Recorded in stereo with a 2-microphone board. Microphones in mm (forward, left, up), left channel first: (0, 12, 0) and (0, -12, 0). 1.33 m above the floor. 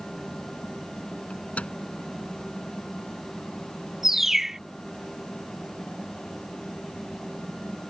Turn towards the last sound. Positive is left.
turn(degrees=-15)  # may be behind; listen again after turning